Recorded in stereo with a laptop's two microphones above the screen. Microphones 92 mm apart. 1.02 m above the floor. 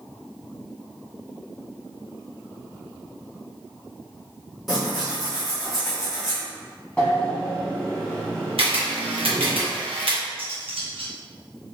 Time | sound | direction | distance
4.7 | tearing paper | centre (ahead or behind) | 1.5 m
7.0 | a sliding door | 15° left (ahead or behind) | 1.2 m
8.6 | a camera shutter | 75° right (ahead or behind) | 0.9 m
10.4 | cutlery clinking | 80° right | 0.8 m